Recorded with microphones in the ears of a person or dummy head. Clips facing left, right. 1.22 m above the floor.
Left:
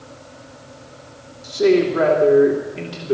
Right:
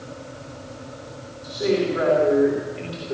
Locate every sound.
1.4 s a man speaking: 65° left (ahead or behind), 2.5 m